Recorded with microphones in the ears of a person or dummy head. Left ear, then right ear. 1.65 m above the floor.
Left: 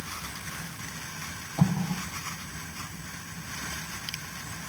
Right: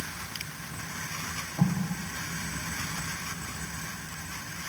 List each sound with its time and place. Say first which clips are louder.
1.6 s an explosion: left 5 dB; 40° left (ahead or behind), 1.5 m